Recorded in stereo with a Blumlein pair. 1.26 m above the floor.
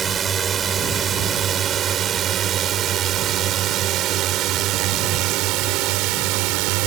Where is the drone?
20° right; by 6.9 s 45° right.